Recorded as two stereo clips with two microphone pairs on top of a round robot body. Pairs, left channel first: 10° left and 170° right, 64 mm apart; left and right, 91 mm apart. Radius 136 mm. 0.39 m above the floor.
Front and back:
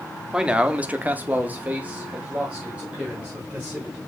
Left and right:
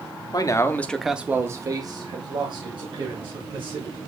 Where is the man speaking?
130° left, 1.1 m; by 4.0 s 100° right, 3 m.